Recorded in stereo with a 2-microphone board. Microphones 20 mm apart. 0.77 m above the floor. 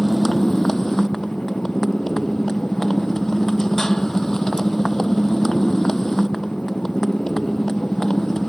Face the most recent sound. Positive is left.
turn(degrees=25)  # may be behind; listen again after turning